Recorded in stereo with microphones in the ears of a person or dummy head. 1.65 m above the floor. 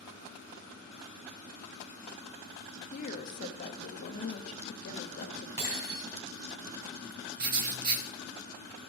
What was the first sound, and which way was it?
A woman speaking, 40° left (ahead or behind).